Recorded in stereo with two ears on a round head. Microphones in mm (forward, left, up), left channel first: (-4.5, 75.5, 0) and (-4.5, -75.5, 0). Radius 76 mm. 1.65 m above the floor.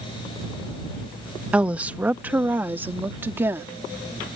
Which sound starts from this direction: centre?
A woman speaking, at 1.5 s.